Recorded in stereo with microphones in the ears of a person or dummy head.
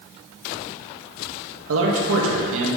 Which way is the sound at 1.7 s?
75° right (ahead or behind).